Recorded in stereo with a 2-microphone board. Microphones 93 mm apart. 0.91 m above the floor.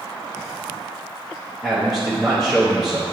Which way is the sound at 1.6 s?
Centre (ahead or behind).